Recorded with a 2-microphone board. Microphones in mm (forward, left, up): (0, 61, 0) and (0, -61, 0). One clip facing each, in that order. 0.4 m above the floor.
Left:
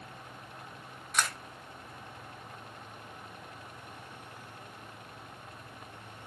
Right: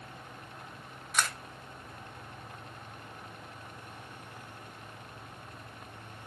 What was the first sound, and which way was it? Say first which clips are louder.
A camera shutter: even; centre (ahead or behind).